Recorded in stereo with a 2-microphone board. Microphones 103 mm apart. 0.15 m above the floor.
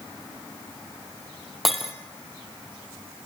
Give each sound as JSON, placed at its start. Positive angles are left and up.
{"t": 1.6, "sound": "breaking glass", "side_deg": 0, "distance_m": 3.0}